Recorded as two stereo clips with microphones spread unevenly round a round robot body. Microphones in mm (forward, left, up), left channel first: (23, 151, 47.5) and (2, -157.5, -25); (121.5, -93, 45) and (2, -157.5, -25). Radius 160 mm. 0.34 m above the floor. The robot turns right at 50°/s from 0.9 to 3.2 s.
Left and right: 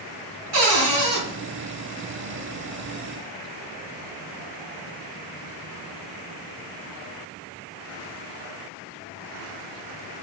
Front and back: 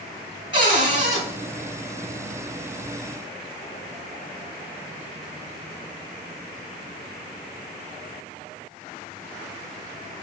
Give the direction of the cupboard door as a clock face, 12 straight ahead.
4 o'clock.